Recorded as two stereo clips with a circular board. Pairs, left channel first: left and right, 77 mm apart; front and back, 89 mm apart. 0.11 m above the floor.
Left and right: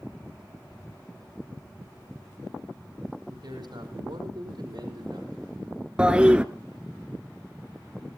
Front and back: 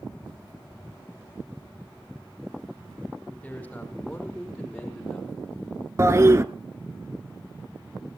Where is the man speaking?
75° right, 4.5 m; by 5.5 s 90° right, 4 m.